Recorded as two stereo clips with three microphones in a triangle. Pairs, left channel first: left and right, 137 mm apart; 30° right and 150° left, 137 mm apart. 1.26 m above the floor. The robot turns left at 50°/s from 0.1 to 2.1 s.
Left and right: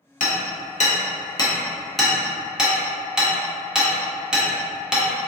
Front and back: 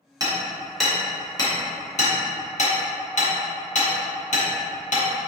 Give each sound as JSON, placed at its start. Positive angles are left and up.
{"t": 0.2, "sound": "hammering", "azimuth_deg": 90, "distance_m": 0.8}